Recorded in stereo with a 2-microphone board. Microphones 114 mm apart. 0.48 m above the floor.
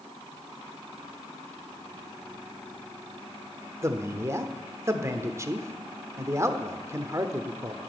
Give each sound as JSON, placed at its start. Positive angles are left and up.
{"t": 3.8, "sound": "a man speaking", "side_deg": -25, "distance_m": 1.0}